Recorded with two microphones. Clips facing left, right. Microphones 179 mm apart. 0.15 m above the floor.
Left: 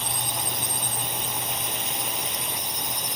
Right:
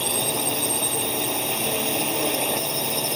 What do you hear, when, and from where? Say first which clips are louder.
0.0 s a drone: right 8 dB; 70° right (ahead or behind); by 3.2 s 65° right (ahead or behind)